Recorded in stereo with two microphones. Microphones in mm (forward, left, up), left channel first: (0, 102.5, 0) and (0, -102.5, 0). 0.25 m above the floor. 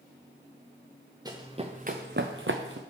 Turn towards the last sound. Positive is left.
turn(degrees=-75)  # may be behind; listen again after turning